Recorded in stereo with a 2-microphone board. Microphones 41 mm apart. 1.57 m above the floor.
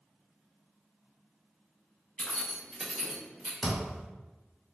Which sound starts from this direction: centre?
A thud, at 3.6 s.